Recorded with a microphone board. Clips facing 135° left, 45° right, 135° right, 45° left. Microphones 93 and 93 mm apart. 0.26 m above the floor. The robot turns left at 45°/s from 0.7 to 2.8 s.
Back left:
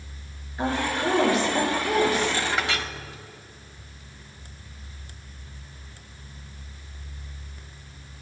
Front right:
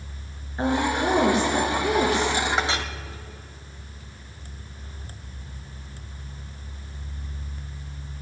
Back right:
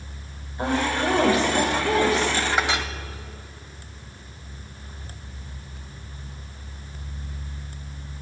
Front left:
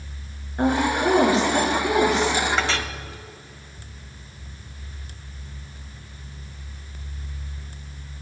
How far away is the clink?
About 0.8 m.